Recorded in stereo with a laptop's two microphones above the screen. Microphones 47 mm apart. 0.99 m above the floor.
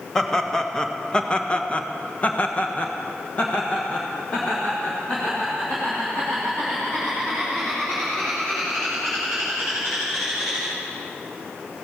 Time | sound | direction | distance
0.1 | laughter | 5° left (ahead or behind) | 1.3 m